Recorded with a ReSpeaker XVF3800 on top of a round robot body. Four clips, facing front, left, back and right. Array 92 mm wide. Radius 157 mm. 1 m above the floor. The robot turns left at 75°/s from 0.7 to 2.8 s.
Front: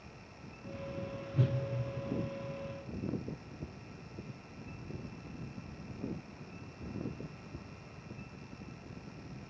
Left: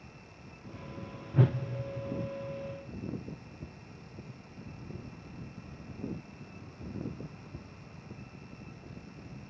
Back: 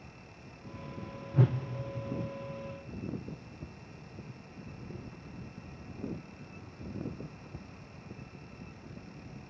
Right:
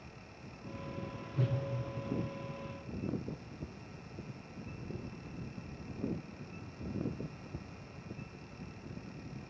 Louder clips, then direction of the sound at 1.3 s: Left 8 dB, back 5 dB; 125° left.